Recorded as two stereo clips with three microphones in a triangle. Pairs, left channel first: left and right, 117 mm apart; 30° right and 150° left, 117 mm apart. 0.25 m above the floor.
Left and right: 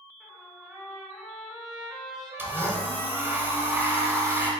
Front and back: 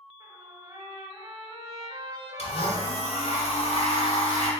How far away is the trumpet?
About 1.0 m.